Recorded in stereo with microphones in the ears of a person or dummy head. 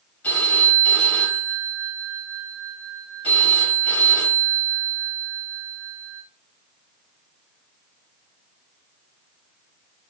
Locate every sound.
0.2 s a phone ringing: 20° left (ahead or behind), 4 m